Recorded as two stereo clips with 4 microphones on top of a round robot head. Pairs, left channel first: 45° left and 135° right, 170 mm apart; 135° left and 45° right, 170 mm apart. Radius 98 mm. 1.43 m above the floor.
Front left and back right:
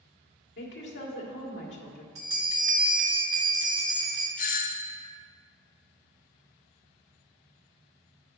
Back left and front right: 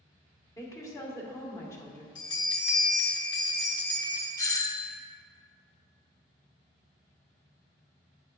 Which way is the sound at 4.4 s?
65° left.